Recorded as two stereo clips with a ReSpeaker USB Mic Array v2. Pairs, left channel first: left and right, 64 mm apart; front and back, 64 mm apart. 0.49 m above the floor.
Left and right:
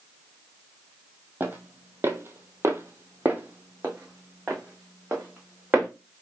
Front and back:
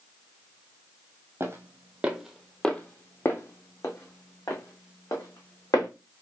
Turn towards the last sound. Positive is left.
turn(degrees=-10)